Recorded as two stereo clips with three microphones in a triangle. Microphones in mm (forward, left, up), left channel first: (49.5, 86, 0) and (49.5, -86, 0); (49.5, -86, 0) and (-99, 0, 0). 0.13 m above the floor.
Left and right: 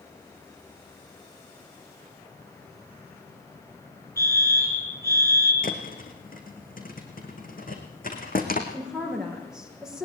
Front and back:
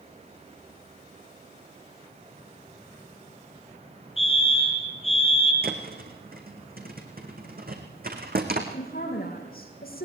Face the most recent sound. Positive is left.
turn(degrees=-5)